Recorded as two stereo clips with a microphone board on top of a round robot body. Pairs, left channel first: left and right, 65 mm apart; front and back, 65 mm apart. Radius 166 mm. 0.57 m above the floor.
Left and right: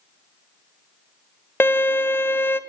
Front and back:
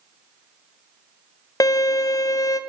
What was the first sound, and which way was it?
A violin, 30° left.